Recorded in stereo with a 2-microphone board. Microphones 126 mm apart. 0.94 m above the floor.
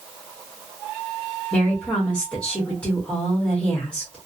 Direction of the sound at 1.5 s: 10° left (ahead or behind).